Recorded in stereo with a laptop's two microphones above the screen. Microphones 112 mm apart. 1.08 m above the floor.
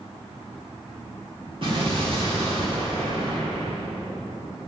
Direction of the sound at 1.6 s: 55° right (ahead or behind).